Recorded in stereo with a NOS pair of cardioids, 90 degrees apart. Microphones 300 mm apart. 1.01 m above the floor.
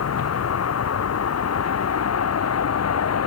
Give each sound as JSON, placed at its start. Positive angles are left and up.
{"t": 0.0, "sound": "a vehicle", "azimuth_deg": 55}